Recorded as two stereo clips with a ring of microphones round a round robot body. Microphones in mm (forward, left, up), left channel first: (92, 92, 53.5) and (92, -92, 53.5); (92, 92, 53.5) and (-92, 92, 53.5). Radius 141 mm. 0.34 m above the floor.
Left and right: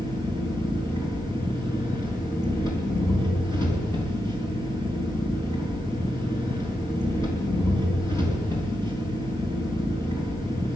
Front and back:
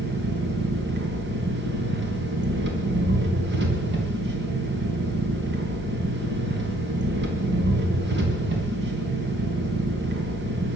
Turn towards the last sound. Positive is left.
turn(degrees=165)